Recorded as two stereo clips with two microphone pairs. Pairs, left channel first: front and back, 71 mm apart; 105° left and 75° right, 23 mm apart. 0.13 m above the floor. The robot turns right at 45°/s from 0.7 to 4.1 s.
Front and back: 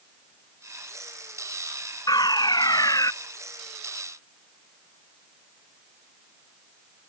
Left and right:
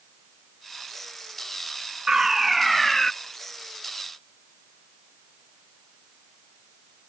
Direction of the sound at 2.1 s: 15° right.